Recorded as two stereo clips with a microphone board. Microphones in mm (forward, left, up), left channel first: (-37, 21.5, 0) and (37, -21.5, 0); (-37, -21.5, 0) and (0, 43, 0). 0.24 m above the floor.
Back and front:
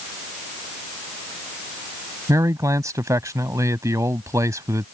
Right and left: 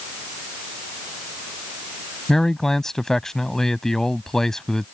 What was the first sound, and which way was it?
A man speaking, 40° right.